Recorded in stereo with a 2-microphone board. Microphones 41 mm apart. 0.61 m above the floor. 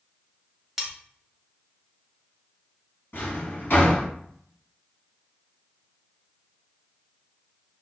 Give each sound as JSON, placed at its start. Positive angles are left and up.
{"t": 0.8, "sound": "cutlery clinking", "side_deg": -5, "distance_m": 0.7}
{"t": 3.1, "sound": "a drawer", "side_deg": 75, "distance_m": 1.2}